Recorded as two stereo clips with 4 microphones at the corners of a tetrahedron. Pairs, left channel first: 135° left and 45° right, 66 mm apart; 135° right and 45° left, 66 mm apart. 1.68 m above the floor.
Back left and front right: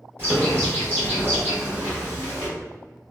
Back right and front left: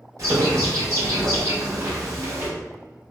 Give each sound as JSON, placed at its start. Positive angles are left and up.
{"t": 0.2, "sound": "a bird", "azimuth_deg": 15, "distance_m": 1.7}